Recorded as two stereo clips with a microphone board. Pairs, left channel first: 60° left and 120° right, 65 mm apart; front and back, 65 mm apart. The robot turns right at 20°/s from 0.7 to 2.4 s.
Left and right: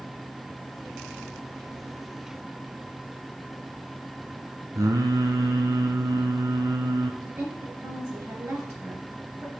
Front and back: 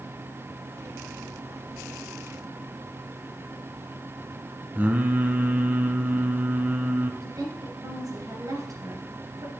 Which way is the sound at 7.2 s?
160° right.